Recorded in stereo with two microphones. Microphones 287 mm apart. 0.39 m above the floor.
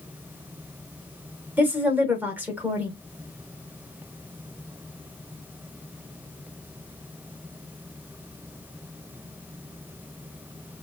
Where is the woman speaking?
5° right (ahead or behind), 0.9 m.